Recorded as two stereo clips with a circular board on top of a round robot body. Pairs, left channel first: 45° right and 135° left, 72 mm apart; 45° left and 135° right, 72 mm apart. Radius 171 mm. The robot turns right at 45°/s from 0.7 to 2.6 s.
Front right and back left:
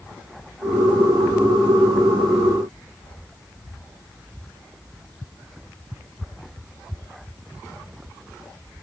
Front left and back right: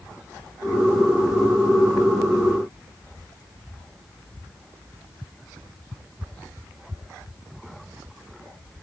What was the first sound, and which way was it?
Only background noise.